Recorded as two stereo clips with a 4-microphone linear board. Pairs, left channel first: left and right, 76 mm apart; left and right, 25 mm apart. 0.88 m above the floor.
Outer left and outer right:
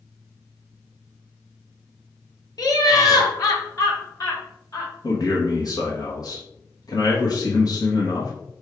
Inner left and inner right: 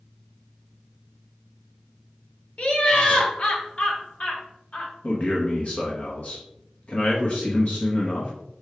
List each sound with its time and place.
2.6 s laughter: 50° left (ahead or behind), 1.4 m
5.0 s a man speaking: 55° left (ahead or behind), 1.0 m